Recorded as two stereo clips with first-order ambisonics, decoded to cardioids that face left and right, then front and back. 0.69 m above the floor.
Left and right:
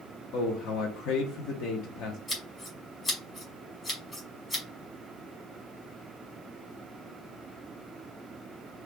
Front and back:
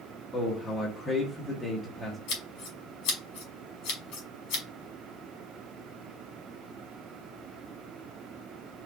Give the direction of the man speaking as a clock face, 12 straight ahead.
9 o'clock.